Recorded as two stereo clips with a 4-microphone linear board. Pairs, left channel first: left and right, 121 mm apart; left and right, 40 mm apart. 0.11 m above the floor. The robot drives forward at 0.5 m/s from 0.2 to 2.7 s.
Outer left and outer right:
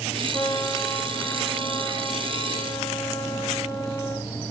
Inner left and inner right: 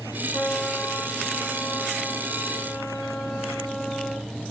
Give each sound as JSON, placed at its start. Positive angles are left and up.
{"t": 0.3, "sound": "a trumpet", "side_deg": 30, "distance_m": 8.0}